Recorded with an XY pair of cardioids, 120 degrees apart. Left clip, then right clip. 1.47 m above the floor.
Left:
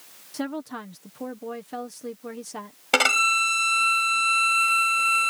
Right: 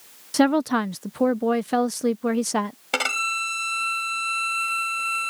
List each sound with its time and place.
0.3 s a woman speaking: 65° right
2.9 s a violin: 25° left